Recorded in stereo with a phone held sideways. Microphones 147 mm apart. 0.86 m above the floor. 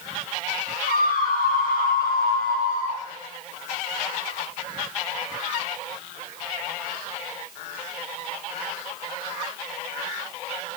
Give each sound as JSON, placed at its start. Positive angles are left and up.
{"t": 0.9, "sound": "a scream", "side_deg": 80, "distance_m": 4.5}